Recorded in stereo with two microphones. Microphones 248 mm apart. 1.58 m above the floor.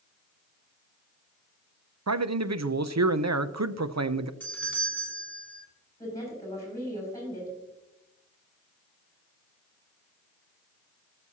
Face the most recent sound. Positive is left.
turn(degrees=10)  # may be behind; listen again after turning